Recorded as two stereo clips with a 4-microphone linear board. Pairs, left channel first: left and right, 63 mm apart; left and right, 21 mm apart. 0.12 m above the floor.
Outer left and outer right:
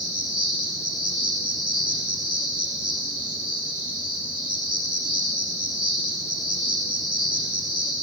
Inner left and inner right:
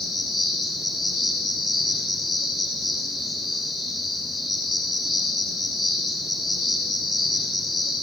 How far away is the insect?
About 8 m.